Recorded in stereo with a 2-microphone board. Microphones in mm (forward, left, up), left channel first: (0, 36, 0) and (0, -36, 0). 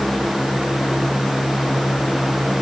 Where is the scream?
I don't hear a scream.